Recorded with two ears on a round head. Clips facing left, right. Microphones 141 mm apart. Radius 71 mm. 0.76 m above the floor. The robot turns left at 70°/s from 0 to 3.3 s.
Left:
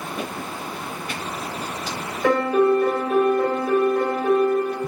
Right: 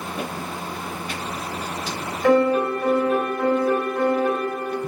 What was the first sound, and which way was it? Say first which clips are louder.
A piano: even; 95° left.